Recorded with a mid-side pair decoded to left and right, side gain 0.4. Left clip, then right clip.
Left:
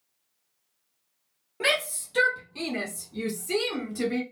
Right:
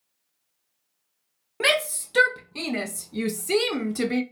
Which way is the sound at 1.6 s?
55° right.